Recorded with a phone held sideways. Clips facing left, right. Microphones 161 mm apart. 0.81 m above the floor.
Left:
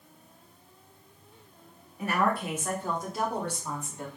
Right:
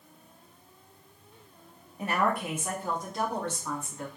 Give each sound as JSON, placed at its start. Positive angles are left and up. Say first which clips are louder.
{"t": 2.0, "sound": "a woman speaking", "louder": "left 1 dB", "side_deg": -30, "distance_m": 1.2}